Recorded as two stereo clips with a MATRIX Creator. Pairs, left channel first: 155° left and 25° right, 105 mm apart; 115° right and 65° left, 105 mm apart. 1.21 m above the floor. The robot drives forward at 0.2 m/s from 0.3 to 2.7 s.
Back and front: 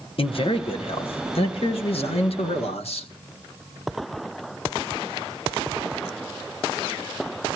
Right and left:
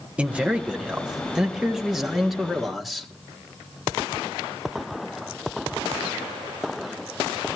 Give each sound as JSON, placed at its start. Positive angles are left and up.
{"t": 0.2, "sound": "a man speaking", "azimuth_deg": 145, "distance_m": 1.1}